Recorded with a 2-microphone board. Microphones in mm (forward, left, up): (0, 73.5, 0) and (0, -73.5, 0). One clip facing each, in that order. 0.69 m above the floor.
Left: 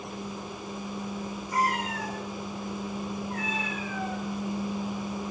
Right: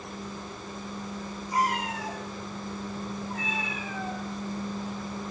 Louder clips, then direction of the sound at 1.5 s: Even; 25° right (ahead or behind).